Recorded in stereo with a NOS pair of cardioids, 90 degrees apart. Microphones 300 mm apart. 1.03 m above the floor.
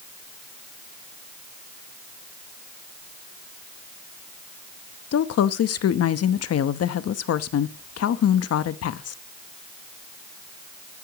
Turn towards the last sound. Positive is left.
turn(degrees=55)